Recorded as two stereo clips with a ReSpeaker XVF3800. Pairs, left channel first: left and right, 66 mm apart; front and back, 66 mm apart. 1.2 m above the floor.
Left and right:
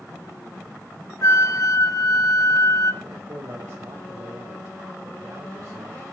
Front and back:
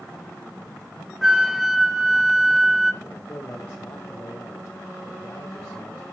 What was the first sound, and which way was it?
A flute, 100° left.